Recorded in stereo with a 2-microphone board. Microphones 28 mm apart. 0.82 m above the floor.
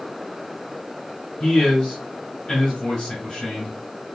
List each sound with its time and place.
1.4 s a man speaking: 15° left (ahead or behind), 2.5 m